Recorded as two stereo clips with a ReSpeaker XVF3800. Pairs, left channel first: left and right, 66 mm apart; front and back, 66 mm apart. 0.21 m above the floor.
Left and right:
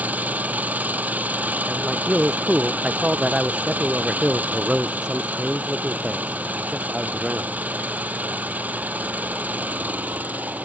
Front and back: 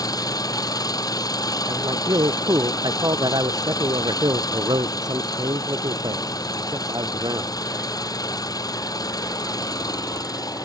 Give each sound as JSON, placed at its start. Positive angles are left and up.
{"t": 0.0, "sound": "an engine running", "azimuth_deg": -25}
{"t": 1.7, "sound": "a man speaking", "azimuth_deg": -170}